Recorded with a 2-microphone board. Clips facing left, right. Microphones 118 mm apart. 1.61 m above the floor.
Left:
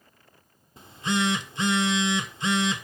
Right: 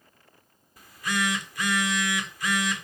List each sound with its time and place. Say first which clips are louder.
0.8 s a phone buzzing: left 3 dB; 25° left (ahead or behind), 1.3 m